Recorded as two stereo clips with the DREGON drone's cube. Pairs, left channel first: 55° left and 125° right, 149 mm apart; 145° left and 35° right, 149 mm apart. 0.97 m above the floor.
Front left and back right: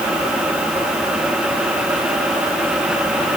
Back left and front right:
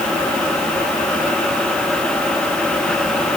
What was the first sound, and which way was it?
Only background noise.